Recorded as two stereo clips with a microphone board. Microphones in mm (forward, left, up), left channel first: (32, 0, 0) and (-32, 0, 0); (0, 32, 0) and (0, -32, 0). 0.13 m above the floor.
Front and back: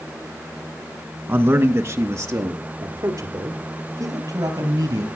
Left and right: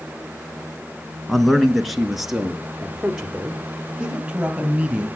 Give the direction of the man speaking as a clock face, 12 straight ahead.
6 o'clock.